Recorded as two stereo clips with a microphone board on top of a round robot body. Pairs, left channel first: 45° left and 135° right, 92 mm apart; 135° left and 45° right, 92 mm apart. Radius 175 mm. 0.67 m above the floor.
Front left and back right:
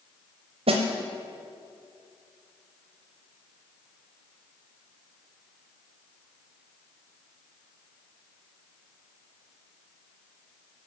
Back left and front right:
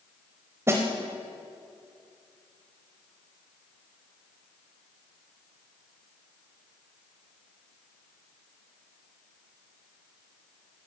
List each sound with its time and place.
0.7 s a snare drum: 110° right, 0.8 m